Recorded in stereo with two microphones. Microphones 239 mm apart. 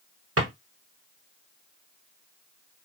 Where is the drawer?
70° right (ahead or behind), 1.4 m.